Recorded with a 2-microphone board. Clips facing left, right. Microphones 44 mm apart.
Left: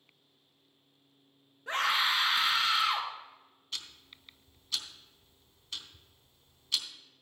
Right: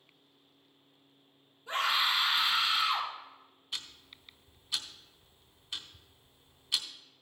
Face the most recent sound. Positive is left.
turn(degrees=-15)  # may be behind; listen again after turning